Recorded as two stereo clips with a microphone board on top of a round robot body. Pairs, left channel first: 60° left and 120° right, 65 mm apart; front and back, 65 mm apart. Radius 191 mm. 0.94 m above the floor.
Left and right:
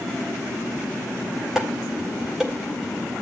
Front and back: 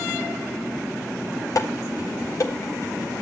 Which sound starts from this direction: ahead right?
Dishes clattering, at 1.6 s.